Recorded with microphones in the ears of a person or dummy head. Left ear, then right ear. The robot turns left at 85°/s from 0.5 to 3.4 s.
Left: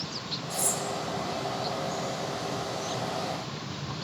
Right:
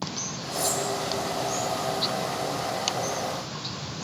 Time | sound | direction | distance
0.5 | cutlery clinking | 40° left (ahead or behind) | 4 m